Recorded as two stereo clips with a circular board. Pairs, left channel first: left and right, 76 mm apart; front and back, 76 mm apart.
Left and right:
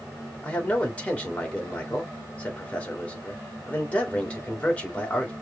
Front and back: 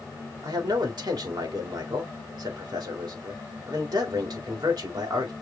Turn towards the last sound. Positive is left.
turn(degrees=160)